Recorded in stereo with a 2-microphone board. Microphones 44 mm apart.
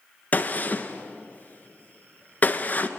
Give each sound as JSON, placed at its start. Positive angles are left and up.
{"t": 0.3, "sound": "a gunshot", "side_deg": 35, "distance_m": 1.1}